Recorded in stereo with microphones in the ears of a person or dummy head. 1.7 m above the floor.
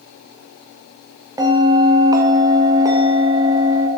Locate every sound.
1.4 s a bell: 15° right (ahead or behind), 0.6 m